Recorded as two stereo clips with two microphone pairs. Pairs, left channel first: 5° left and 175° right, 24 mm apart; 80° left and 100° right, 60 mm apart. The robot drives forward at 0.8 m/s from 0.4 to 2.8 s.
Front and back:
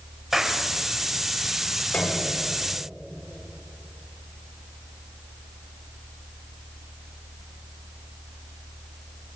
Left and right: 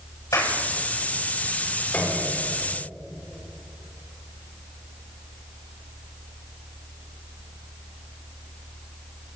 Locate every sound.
0.3 s a clap: 105° left, 7.5 m
1.9 s a piano: 10° left, 4.5 m